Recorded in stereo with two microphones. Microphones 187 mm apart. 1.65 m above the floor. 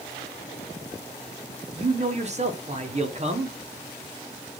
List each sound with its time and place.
1.8 s a man speaking: 35° right (ahead or behind), 0.7 m